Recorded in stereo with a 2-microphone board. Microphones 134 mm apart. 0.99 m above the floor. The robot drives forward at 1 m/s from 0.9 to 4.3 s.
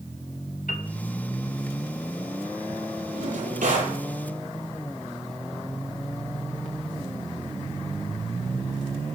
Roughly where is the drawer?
Right.